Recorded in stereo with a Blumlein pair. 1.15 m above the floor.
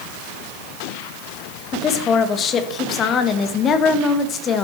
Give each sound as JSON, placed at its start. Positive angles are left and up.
{"t": 1.7, "sound": "a woman speaking", "azimuth_deg": 25, "distance_m": 1.5}